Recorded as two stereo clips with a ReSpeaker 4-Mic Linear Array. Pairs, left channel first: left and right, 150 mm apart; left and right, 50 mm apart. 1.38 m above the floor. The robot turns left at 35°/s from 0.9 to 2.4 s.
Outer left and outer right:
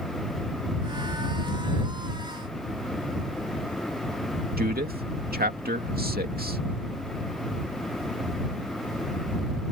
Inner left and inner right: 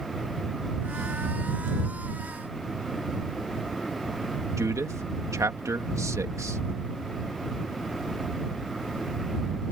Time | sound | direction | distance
4.6 | a man speaking | 80° right | ?